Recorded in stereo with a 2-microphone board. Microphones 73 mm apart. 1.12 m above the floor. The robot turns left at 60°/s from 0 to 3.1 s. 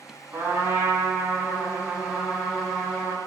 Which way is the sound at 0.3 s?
25° right (ahead or behind).